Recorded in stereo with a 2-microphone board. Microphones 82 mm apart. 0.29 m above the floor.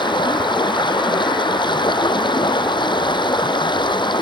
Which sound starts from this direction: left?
Running water, at 0.0 s.